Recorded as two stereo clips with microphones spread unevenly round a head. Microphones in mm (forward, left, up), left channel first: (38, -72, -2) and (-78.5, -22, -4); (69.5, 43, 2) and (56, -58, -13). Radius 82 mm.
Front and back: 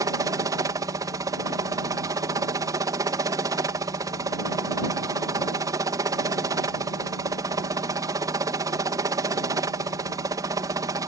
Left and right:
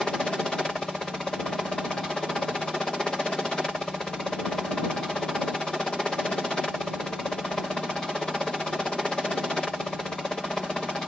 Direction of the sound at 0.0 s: 175° left.